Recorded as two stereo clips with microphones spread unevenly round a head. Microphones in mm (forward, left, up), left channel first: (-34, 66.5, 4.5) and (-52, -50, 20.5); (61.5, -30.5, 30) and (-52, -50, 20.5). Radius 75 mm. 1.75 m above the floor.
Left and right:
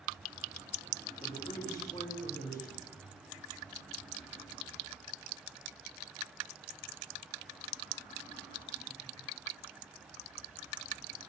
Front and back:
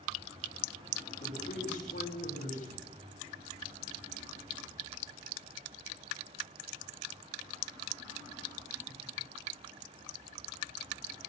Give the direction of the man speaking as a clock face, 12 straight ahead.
12 o'clock.